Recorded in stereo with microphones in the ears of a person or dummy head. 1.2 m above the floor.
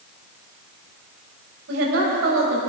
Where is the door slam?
No door slam in this recording.